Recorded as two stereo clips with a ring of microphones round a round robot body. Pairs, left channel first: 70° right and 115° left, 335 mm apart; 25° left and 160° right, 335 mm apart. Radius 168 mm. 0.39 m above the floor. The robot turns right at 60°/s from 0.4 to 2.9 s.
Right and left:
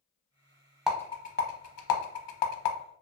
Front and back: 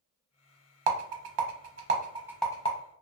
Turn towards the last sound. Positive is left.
turn(degrees=-35)